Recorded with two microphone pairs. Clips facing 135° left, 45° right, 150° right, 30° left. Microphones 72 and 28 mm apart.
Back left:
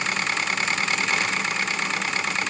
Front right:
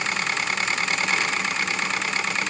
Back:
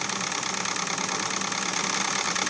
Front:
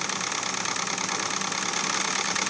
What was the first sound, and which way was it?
Only background noise.